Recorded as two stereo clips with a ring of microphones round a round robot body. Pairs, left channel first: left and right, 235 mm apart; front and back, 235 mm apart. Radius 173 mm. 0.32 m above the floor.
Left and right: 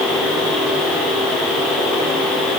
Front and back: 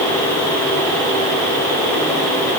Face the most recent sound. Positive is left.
No sound to turn to.